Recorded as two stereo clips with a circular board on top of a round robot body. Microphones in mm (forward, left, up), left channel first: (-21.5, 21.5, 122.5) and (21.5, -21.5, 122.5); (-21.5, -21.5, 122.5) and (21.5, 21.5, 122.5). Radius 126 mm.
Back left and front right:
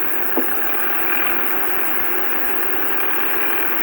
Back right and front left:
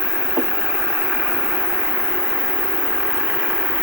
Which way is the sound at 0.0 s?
115° right.